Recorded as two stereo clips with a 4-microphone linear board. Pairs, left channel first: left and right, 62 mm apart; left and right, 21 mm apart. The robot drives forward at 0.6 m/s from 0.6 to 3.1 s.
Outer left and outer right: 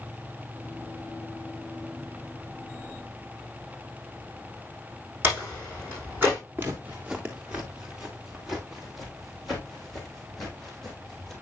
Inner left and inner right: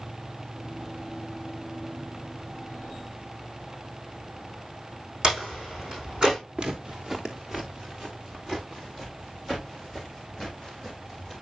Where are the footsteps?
30° right (ahead or behind), 2 m; by 11.3 s 5° left (ahead or behind), 6 m.